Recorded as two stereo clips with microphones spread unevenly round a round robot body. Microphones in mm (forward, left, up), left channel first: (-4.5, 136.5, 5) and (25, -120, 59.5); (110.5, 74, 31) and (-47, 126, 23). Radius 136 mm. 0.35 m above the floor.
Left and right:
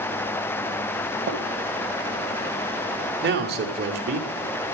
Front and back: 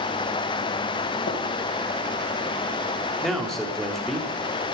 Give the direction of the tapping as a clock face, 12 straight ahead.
1 o'clock.